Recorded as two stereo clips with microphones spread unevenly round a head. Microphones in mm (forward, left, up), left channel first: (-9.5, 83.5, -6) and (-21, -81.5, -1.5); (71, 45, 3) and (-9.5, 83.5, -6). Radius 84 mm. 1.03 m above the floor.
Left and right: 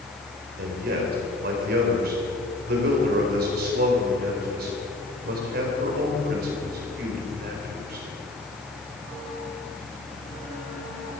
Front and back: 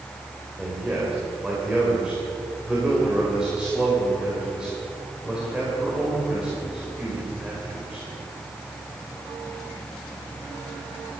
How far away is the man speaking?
About 4 m.